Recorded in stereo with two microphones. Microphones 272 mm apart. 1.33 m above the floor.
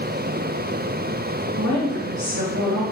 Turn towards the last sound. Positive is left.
turn(degrees=-70)  # may be behind; listen again after turning